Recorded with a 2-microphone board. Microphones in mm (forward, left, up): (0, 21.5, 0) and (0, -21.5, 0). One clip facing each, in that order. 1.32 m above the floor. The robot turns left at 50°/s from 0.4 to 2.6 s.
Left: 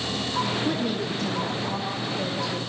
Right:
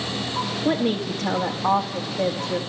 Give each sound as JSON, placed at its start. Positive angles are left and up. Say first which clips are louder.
{"t": 0.7, "sound": "a woman speaking", "louder": "right 4 dB", "azimuth_deg": -50, "distance_m": 2.0}